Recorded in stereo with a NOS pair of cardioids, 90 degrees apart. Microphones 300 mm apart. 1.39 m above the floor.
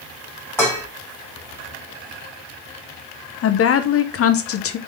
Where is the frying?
I don't hear frying.